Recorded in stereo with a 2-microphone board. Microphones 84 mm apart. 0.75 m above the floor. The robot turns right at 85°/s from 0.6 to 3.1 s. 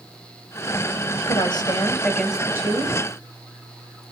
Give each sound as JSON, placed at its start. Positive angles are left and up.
{"t": 1.2, "sound": "a woman speaking", "azimuth_deg": 95, "distance_m": 4.0}